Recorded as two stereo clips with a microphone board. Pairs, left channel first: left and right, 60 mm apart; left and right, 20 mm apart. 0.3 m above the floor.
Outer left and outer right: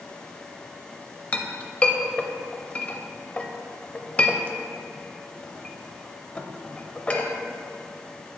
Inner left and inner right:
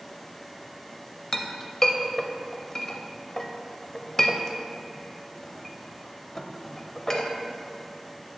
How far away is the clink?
About 0.6 m.